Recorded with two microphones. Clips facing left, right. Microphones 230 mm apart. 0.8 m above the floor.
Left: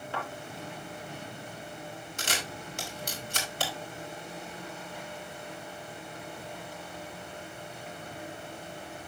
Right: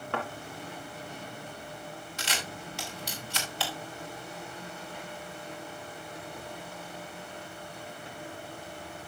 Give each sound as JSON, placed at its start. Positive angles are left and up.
{"t": 0.1, "sound": "a thud", "side_deg": -65, "distance_m": 2.5}
{"t": 2.2, "sound": "a camera shutter", "side_deg": 50, "distance_m": 2.5}